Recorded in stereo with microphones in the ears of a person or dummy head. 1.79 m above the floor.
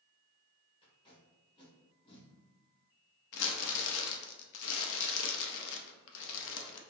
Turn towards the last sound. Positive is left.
turn(degrees=70)  # may be behind; listen again after turning